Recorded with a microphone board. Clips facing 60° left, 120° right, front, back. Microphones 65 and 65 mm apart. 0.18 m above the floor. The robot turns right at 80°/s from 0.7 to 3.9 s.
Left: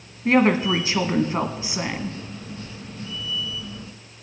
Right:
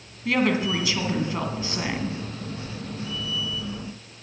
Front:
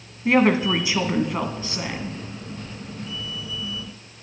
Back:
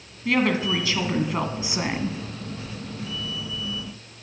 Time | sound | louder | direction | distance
0.2 | a woman speaking | left 5 dB, front 4 dB | 40° left | 1.3 m